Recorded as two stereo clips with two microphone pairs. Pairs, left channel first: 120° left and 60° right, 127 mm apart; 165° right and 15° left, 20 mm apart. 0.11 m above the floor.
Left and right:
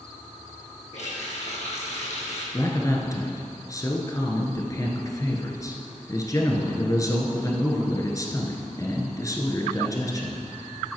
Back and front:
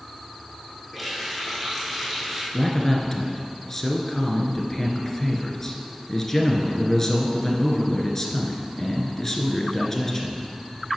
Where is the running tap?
95° left, 3.5 m.